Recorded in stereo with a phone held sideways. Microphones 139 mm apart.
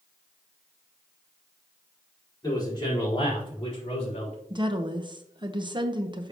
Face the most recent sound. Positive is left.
turn(degrees=-35)  # may be behind; listen again after turning